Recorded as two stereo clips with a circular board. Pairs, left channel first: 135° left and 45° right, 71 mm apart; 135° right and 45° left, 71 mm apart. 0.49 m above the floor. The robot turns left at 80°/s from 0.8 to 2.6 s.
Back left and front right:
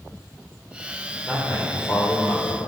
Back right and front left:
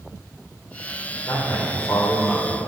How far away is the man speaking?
About 1.9 m.